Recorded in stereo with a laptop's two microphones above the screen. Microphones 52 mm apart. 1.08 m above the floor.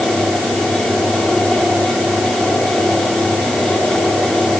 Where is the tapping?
No tapping in this recording.